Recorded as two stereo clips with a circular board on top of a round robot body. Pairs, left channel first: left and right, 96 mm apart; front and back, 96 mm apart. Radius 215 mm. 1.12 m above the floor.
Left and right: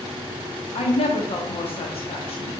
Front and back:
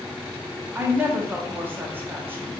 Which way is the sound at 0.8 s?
110° left.